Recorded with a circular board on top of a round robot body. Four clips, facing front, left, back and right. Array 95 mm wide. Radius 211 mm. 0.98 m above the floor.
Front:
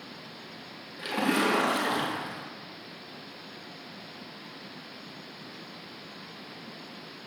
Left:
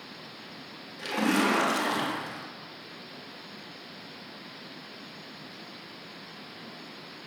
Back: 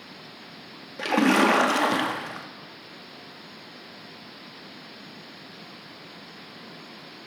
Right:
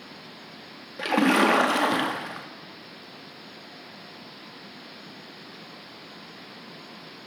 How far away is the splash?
About 1.8 m.